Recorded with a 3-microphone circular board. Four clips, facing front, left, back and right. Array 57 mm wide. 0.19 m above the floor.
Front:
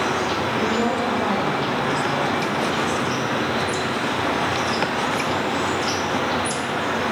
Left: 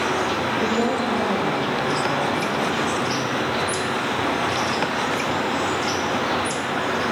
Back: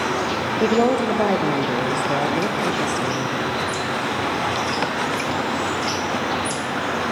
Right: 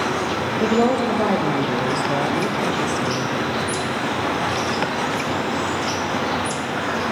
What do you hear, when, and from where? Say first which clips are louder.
0.6 s a woman speaking: right 7 dB, back 7 dB; 150° right, 4 m